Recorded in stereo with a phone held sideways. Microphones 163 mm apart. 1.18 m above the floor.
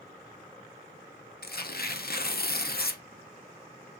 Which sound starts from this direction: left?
Tearing paper, at 1.4 s.